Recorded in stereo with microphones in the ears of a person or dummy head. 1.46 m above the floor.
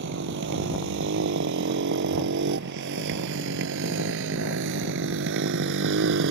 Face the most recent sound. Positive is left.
turn(degrees=-75)  # may be behind; listen again after turning